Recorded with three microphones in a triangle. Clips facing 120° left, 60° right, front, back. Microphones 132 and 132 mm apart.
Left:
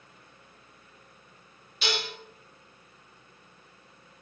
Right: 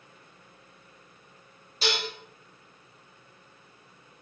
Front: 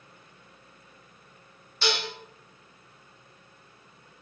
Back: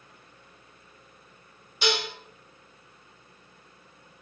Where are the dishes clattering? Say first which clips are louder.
Right 2 dB, back 2 dB; 105° right, 0.8 m.